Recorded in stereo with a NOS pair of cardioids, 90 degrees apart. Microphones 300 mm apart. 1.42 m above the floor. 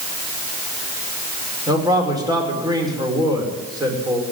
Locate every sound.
1.7 s a man speaking: 10° right, 5.5 m